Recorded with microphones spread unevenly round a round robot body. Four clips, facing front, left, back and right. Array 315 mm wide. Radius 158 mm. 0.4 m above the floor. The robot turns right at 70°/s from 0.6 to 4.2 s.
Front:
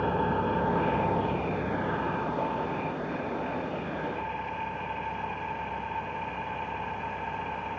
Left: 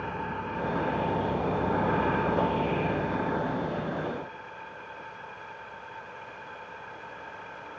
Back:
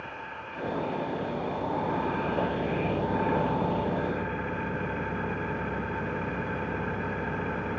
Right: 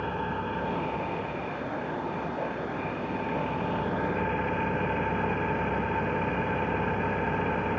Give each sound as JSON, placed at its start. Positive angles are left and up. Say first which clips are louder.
{"t": 0.0, "sound": "an engine running", "louder": "right 3 dB, front 13 dB", "azimuth_deg": -10}